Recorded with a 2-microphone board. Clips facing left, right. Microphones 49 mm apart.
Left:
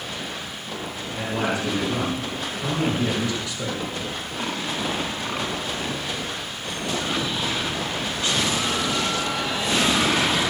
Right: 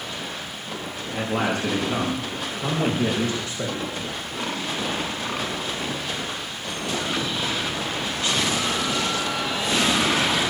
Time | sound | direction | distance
1.1 | a man speaking | 50° right (ahead or behind) | 6.5 m